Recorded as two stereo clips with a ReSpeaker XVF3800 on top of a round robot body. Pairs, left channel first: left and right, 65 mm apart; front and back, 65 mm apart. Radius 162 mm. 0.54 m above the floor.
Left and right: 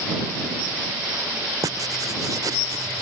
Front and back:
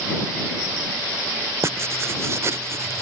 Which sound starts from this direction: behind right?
Writing, at 1.6 s.